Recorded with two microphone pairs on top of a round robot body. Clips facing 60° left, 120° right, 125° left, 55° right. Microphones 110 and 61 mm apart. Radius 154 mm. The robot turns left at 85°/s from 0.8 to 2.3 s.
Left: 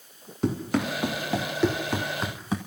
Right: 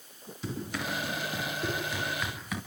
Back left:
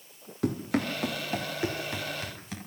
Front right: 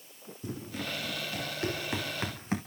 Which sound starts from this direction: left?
Running footsteps, at 0.4 s.